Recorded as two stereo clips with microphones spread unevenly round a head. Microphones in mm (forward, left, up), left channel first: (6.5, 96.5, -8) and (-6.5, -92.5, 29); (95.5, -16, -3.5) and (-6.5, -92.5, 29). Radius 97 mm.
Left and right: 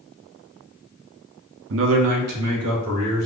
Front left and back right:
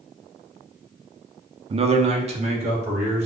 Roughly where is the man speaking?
Right.